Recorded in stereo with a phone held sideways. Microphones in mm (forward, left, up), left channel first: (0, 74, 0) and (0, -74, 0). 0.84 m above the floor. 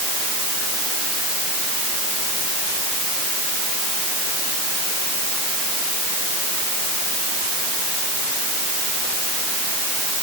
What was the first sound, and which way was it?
Only background noise.